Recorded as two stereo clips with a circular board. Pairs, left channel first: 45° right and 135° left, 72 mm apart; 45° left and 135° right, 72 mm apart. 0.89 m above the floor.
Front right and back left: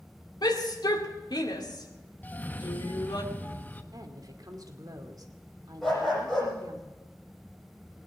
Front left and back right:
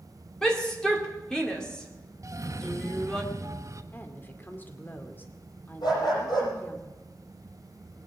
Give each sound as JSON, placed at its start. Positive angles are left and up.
{"t": 0.4, "sound": "a shout", "azimuth_deg": -35, "distance_m": 2.5}
{"t": 2.2, "sound": "a cough", "azimuth_deg": -105, "distance_m": 1.2}
{"t": 3.9, "sound": "a woman speaking", "azimuth_deg": 110, "distance_m": 2.5}
{"t": 5.8, "sound": "a dog barking", "azimuth_deg": 45, "distance_m": 7.5}